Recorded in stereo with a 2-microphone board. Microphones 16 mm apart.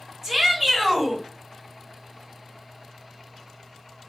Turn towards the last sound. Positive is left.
turn(degrees=-20)  # may be behind; listen again after turning